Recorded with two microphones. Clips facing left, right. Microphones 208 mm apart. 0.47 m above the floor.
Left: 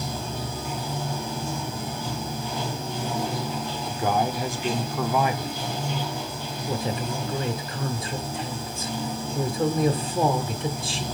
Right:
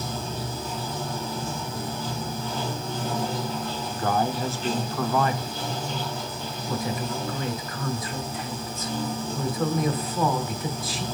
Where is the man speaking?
15° left (ahead or behind), 0.7 m.